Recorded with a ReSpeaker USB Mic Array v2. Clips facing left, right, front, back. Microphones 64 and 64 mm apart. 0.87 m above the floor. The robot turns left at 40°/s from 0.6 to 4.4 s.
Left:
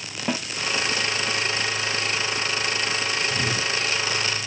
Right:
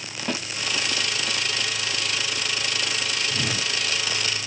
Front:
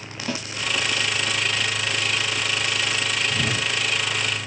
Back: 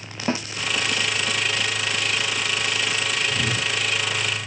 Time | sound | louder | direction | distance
0.3 | a snare drum | left 2 dB, back 5 dB | 160° left | 0.8 m
3.3 | a whoosh | left 2 dB, even | 15° right | 5.5 m